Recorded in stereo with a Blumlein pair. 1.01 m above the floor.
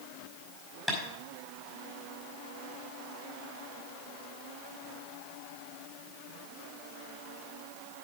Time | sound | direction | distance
0.9 | tapping | 10° left | 5 m